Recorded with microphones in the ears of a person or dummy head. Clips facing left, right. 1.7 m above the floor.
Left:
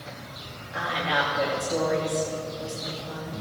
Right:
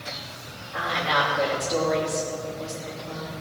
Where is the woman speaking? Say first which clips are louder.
Right 1 dB; 5° left (ahead or behind), 3 m.